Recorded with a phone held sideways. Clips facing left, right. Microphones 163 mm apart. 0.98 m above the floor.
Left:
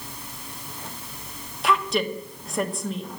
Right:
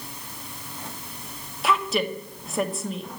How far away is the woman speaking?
About 1.2 m.